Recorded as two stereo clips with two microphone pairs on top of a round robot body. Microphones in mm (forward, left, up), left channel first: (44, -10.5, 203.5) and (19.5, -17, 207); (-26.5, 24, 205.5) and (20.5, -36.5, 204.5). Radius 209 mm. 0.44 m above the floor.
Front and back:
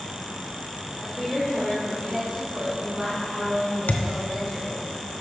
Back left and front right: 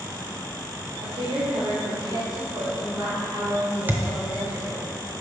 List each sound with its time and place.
1.0 s a woman speaking: 60° right, 2.5 m; by 4.8 s 115° right, 4.5 m
3.9 s a thud: 15° left, 0.6 m